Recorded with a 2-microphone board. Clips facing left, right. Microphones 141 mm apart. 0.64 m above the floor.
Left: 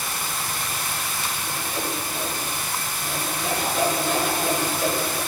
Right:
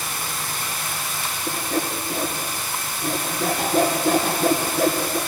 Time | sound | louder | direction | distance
1.5 | sawing | right 7 dB | 55° right (ahead or behind) | 2.5 m